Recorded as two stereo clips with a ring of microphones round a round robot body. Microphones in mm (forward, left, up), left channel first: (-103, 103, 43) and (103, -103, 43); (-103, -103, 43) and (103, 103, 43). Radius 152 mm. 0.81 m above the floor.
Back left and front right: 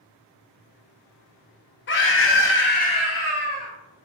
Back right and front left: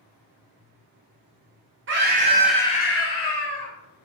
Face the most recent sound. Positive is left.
turn(degrees=-135)